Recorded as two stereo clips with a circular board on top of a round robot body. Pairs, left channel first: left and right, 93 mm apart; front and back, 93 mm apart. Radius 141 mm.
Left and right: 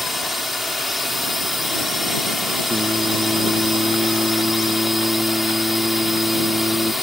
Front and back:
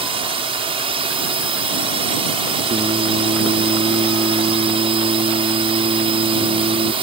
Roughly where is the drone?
Behind.